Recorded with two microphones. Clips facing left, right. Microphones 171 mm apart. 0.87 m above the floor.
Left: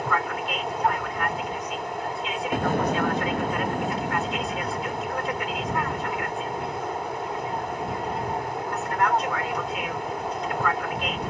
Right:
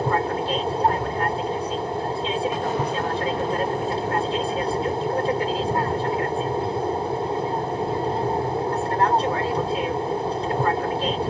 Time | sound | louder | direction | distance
0.0 | an aircraft | right 5 dB | 30° right (ahead or behind) | ?
2.5 | an explosion | even | 50° left (ahead or behind) | ?